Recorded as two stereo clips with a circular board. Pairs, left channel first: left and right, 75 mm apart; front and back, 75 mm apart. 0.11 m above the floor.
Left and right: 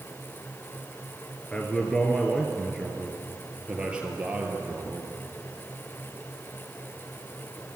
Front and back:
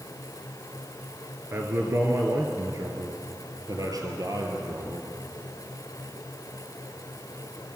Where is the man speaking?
155° left, 1.7 m; by 5.1 s 155° right, 3 m.